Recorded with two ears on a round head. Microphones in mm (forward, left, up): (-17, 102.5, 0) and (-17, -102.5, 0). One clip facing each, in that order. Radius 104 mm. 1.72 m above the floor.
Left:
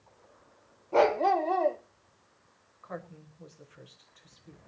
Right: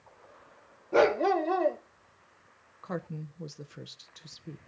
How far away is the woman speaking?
About 1.0 m.